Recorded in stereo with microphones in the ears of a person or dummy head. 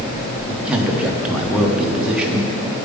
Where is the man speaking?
10° right (ahead or behind), 0.9 m.